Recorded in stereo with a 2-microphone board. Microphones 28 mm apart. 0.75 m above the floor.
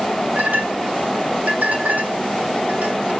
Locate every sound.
0.3 s a clink: 90° right, 1.9 m